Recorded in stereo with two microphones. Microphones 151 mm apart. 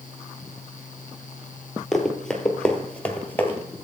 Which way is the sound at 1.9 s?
Centre (ahead or behind).